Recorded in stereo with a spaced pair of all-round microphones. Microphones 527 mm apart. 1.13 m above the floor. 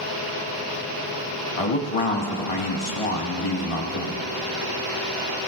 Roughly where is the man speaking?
Left.